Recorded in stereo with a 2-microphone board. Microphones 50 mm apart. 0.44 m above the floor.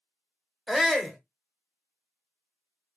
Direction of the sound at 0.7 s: 5° left (ahead or behind).